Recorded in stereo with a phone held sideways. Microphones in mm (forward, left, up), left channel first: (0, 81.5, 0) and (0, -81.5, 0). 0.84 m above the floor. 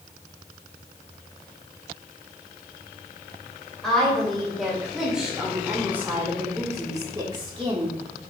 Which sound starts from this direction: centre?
A woman speaking, at 3.8 s.